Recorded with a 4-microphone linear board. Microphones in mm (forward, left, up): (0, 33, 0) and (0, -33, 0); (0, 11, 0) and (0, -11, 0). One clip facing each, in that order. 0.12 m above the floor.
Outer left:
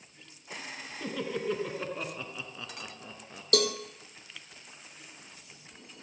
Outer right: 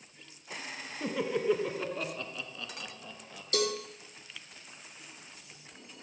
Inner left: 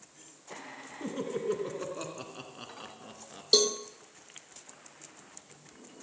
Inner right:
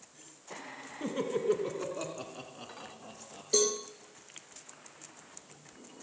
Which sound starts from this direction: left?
A cowbell, at 3.5 s.